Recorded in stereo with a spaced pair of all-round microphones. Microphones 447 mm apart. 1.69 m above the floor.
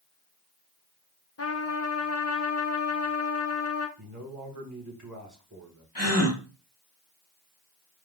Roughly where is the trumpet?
Left.